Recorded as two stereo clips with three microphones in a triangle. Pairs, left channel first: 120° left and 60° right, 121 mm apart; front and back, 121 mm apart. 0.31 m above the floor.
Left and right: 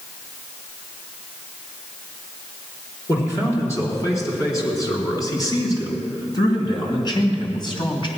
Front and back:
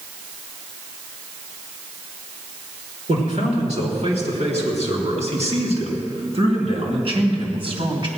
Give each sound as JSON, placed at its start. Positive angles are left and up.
{"t": 3.1, "sound": "a man speaking", "azimuth_deg": -175, "distance_m": 4.5}